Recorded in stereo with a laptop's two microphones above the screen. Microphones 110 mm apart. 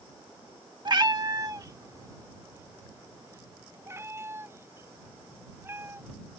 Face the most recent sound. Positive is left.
turn(degrees=-20)  # may be behind; listen again after turning